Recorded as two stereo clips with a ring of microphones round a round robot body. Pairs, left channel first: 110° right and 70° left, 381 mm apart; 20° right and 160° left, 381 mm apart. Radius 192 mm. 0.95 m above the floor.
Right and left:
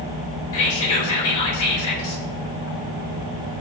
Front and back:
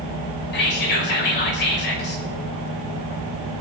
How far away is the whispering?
About 4.5 m.